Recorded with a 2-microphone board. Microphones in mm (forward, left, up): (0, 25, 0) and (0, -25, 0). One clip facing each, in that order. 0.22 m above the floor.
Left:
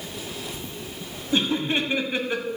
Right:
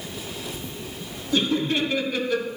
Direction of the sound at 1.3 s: 25° left (ahead or behind).